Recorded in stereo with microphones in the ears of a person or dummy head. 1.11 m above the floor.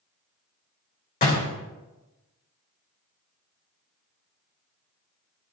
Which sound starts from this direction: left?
A door slam, at 1.2 s.